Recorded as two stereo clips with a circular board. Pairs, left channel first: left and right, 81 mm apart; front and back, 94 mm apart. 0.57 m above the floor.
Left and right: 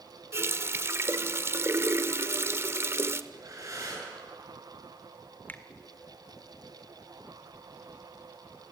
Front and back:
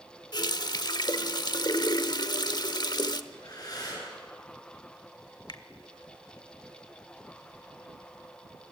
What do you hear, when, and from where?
0.3 s a running tap: 35° right, 0.9 m
3.3 s breathing: 45° right, 9 m
5.5 s a finger snap: 25° left, 1.4 m